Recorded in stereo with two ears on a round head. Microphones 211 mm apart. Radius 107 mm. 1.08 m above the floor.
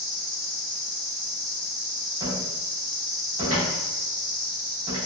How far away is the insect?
About 2.0 m.